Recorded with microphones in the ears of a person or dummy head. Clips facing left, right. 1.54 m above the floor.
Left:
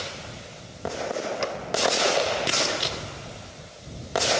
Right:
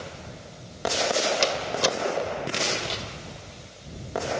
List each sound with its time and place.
1.4 s a door slam: 45° right (ahead or behind)